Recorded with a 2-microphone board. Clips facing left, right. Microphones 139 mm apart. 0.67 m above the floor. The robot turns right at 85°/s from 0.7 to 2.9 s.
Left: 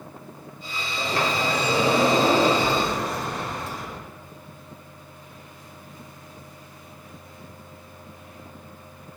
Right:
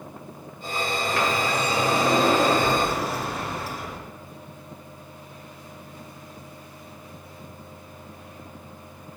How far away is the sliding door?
About 0.5 m.